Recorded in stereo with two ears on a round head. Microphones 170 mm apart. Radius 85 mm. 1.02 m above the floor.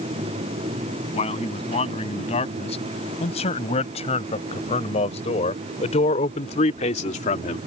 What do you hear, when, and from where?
1.1 s a man speaking: 35° left (ahead or behind); by 7.7 s 40° left (ahead or behind)